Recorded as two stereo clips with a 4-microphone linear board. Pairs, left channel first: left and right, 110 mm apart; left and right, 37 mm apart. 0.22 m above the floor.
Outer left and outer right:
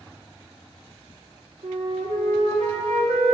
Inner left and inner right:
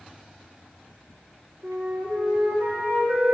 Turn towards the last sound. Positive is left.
turn(degrees=-85)